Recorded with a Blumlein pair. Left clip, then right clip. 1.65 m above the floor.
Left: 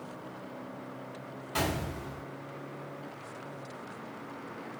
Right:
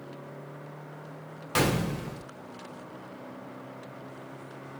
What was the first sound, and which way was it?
A gunshot, 55° right.